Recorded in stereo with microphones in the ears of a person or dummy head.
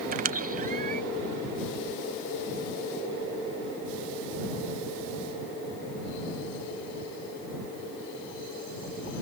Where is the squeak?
40° right (ahead or behind).